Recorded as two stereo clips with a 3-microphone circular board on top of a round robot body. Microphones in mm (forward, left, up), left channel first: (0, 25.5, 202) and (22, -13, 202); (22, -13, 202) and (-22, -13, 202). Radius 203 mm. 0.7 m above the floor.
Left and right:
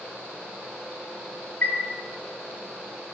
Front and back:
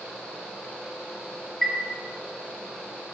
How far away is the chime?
About 1.4 m.